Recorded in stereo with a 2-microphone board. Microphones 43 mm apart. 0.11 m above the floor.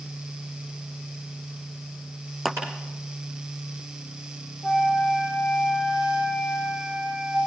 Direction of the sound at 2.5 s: 5° right (ahead or behind).